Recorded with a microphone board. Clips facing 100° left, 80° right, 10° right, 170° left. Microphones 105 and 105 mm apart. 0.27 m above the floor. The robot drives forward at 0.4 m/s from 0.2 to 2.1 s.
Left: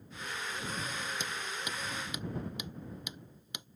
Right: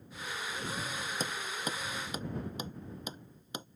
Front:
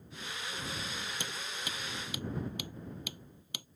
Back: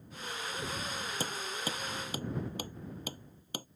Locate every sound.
1.2 s hammering: 135° right